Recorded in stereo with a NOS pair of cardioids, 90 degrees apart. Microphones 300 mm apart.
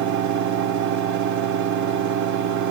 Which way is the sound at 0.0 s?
70° right.